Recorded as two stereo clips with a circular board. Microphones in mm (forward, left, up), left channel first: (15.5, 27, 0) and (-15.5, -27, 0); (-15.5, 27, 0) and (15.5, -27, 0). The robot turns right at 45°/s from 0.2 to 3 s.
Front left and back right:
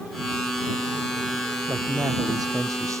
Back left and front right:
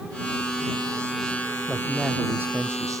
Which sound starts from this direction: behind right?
A man speaking, at 1.7 s.